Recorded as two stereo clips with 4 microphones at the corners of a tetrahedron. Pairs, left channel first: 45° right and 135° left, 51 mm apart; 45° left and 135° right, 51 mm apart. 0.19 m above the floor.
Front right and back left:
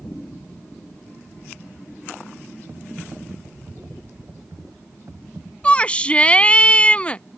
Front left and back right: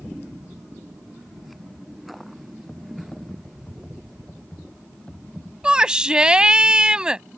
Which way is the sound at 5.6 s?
80° right.